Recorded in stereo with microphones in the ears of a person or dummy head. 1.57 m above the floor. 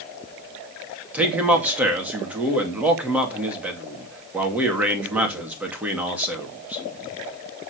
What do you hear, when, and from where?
1.1 s a man speaking: 5° right (ahead or behind), 2.5 m